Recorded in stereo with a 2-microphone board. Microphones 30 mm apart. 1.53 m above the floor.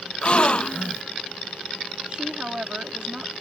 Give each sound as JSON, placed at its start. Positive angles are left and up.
{"t": 0.2, "sound": "a gasp", "side_deg": 40}
{"t": 2.1, "sound": "a woman speaking", "side_deg": -35}